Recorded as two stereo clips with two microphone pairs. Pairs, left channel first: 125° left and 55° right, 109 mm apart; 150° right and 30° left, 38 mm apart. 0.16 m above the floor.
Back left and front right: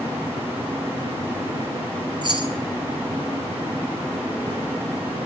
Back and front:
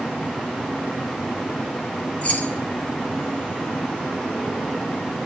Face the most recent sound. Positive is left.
turn(degrees=-95)